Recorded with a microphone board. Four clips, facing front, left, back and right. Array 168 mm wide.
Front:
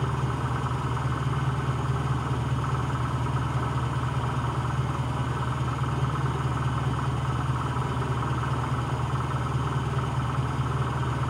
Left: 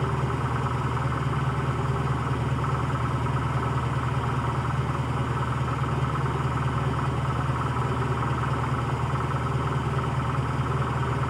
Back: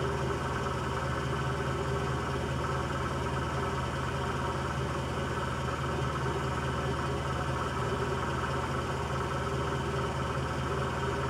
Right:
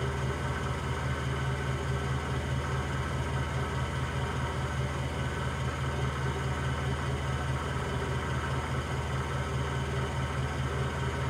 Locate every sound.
0.0 s an engine running: 65° left, 0.8 m